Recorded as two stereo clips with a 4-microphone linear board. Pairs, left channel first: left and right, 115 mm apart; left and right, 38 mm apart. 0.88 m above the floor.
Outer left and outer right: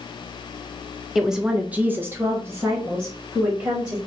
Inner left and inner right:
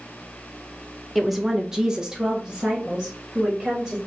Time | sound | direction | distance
1.1 | a woman speaking | 5° right (ahead or behind) | 0.6 m